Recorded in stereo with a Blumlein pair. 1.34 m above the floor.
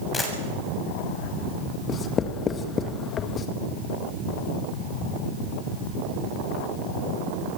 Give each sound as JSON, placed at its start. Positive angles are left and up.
{"t": 0.1, "sound": "a camera shutter", "azimuth_deg": 15, "distance_m": 7.0}
{"t": 1.9, "sound": "writing", "azimuth_deg": 25, "distance_m": 1.8}